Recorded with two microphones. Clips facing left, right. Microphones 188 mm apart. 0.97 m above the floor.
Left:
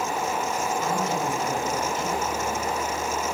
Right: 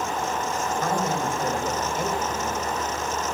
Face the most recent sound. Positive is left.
turn(degrees=-60)  # may be behind; listen again after turning